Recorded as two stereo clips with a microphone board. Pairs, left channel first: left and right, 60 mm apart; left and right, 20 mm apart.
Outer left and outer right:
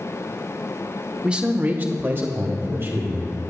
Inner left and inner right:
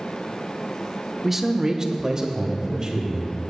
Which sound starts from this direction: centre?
A man speaking, at 1.2 s.